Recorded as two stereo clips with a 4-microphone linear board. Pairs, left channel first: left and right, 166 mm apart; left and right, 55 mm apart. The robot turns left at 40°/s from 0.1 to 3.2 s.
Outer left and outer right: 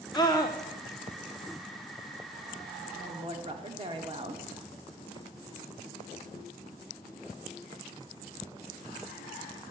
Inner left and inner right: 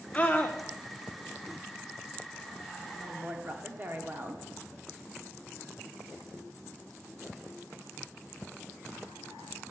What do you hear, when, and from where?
0.1 s a scream: 25° left (ahead or behind), 1.0 m; by 0.6 s 20° left (ahead or behind), 1.0 m
2.9 s a woman speaking: 35° right (ahead or behind), 1.3 m